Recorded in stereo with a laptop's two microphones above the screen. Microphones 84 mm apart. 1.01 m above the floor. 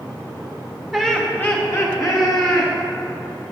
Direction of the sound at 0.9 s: Centre (ahead or behind).